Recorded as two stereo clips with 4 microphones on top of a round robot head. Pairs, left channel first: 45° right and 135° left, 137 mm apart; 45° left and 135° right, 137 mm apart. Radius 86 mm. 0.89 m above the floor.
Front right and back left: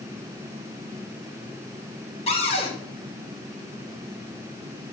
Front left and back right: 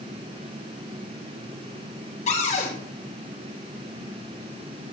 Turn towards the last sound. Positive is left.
turn(degrees=5)